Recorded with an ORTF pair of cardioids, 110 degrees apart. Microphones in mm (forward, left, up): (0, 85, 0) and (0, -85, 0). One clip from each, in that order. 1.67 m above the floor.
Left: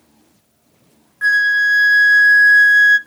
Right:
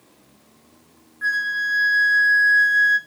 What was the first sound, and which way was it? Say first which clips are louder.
A flute: left 9 dB; 50° left.